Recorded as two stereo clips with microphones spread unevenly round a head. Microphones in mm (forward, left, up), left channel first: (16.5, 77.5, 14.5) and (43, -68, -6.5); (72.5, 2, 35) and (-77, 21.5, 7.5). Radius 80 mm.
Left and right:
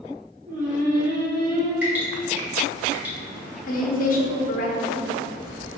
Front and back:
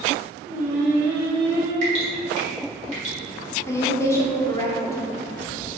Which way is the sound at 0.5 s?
100° right.